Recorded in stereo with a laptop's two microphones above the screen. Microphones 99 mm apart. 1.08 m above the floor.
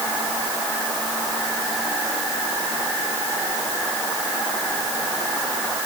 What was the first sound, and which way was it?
Only background noise.